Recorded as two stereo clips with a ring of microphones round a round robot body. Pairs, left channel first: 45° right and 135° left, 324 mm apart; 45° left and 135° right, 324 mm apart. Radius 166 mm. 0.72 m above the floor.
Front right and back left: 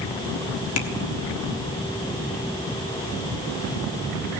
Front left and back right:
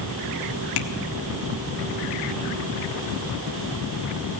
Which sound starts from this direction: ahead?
Tapping, at 0.8 s.